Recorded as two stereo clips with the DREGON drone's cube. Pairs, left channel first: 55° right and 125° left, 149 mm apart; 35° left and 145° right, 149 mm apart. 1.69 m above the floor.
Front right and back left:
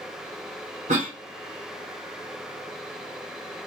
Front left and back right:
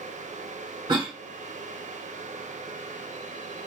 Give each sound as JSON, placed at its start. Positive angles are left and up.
{"t": 0.9, "sound": "a cough", "azimuth_deg": 155, "distance_m": 0.8}